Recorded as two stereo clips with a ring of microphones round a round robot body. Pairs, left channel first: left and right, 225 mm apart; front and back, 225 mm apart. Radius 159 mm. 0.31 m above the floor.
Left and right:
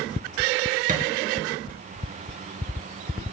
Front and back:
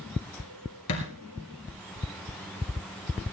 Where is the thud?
35° right, 2.5 m.